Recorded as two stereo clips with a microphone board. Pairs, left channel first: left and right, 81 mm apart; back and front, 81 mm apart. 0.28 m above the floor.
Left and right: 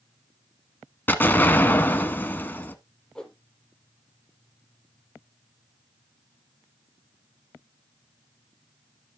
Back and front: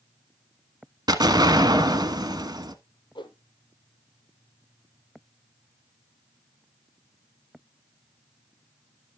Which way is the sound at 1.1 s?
25° left.